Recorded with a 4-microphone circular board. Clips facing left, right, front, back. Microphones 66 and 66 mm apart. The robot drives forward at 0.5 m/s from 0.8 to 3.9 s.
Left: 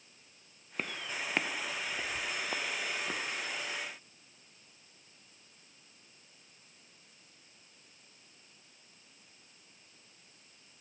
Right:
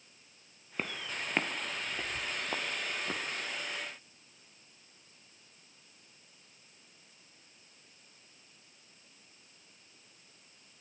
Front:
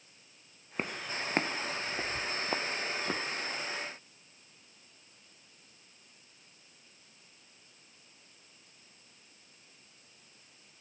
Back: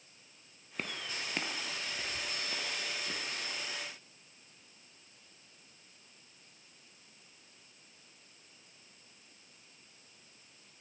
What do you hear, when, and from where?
0.8 s footsteps: 5° right, 1.3 m